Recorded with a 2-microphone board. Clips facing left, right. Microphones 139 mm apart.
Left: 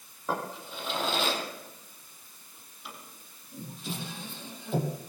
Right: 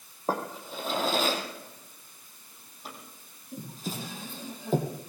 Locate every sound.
0.3 s a drawer: 40° right (ahead or behind), 5 m